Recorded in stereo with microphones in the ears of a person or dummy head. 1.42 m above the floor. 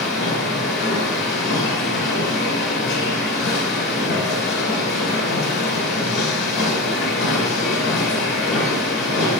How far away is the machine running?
About 2.5 m.